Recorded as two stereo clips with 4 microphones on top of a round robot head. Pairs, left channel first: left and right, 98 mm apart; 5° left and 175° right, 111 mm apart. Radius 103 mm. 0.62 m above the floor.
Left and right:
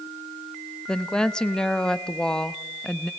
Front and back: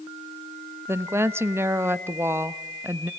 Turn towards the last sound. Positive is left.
turn(degrees=160)